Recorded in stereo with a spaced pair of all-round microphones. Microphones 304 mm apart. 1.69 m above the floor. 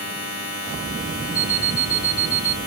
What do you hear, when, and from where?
0.0 s a machine running: 50° left (ahead or behind), 2 m
1.3 s an alarm clock: 15° left (ahead or behind), 2 m